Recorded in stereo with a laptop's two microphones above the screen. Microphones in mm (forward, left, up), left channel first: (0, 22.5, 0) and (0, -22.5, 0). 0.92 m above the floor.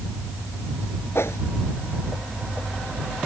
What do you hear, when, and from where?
1.1 s a whoosh: 65° left (ahead or behind)